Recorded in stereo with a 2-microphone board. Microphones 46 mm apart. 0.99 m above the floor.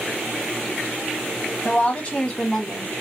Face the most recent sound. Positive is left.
turn(degrees=-5)  # may be behind; listen again after turning